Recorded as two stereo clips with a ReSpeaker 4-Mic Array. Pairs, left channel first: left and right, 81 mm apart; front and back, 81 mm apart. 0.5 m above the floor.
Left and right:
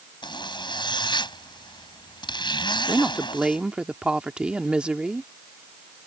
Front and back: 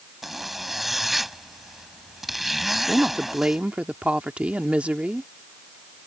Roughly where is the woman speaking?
Behind right.